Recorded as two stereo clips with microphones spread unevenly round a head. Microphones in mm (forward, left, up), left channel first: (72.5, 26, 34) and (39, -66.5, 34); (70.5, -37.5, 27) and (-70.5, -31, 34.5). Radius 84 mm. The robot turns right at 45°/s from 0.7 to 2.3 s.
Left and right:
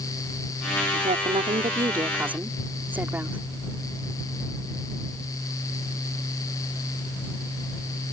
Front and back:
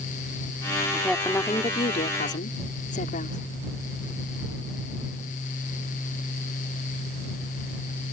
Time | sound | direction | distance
0.9 | a woman speaking | 100° right | ?